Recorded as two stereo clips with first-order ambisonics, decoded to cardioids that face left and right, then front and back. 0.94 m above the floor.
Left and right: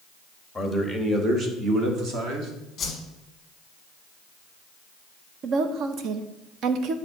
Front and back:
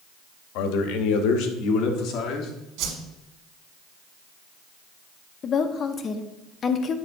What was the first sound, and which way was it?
A man speaking, straight ahead.